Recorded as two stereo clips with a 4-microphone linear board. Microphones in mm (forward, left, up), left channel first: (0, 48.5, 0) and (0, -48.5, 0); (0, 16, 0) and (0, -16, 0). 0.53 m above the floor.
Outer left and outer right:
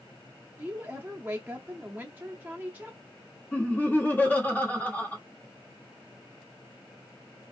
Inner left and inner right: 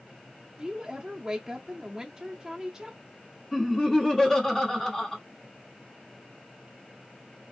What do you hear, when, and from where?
0.6 s a woman speaking: 20° right (ahead or behind), 0.6 m
3.5 s laughter: 20° left (ahead or behind), 1.5 m